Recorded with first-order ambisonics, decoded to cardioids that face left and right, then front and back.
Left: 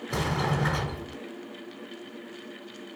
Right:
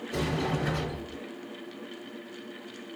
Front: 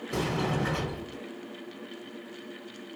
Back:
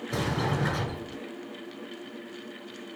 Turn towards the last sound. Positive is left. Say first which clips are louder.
# left 2 dB, even
turn(degrees=100)